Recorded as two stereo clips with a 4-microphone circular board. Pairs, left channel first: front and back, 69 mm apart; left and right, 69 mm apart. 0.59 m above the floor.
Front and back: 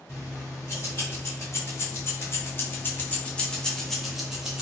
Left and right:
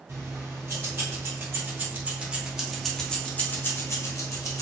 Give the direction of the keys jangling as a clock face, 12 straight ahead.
2 o'clock.